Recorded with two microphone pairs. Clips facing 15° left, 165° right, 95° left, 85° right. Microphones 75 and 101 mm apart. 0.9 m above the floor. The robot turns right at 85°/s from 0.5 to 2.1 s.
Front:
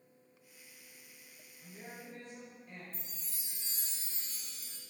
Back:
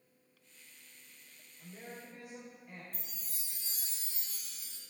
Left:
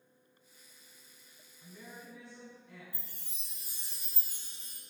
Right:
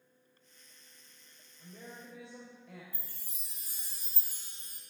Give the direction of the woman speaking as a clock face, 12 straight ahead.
4 o'clock.